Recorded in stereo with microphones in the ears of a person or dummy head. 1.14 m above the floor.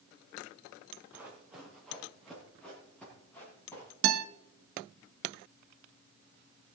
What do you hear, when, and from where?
1.1 s running footsteps: 10° right (ahead or behind), 4 m; by 3.9 s 10° left (ahead or behind), 7 m
4.0 s a guitar: 90° right, 1.5 m